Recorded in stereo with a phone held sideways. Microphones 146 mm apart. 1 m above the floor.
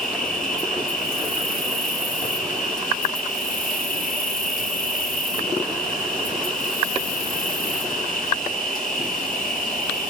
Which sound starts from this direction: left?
An insect, at 0.0 s.